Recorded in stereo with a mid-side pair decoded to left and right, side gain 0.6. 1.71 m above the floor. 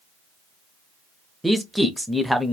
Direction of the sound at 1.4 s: Straight ahead.